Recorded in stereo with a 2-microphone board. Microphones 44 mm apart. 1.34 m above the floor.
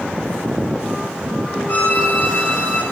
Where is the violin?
50° left (ahead or behind), 3 m.